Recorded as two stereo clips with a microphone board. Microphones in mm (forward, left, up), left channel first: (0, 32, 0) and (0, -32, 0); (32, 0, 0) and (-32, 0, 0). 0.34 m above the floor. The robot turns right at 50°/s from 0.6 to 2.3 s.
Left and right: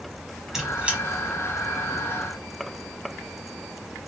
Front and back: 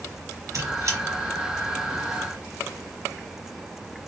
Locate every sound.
0.5 s a squeak: 170° right, 0.8 m; by 1.0 s 150° right, 0.8 m